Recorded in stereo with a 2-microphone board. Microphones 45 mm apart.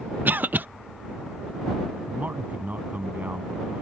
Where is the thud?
I don't hear a thud.